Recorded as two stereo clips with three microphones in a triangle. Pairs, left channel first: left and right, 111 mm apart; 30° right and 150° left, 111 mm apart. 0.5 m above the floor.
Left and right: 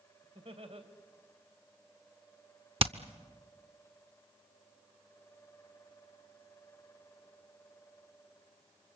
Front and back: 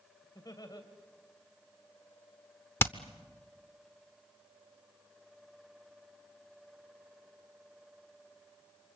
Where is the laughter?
80° right, 3 m.